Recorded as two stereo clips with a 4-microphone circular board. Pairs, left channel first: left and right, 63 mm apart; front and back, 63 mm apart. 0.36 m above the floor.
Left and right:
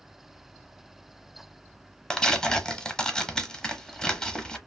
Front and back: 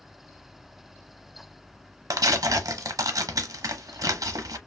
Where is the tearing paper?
170° left, 0.8 m.